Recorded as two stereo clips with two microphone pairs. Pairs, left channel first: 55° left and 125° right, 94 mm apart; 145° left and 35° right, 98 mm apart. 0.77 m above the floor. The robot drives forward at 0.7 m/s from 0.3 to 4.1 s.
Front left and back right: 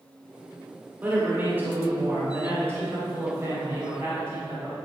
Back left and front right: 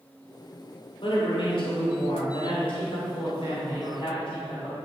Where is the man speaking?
165° left, 2.0 m; by 4.8 s 175° left, 4 m.